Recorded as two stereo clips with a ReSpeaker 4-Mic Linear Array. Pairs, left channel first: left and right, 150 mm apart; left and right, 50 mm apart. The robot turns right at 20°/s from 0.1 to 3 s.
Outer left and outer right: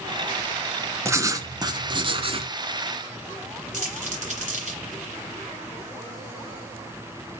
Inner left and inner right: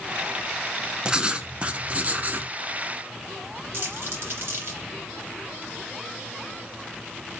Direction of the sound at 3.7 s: 55° right (ahead or behind).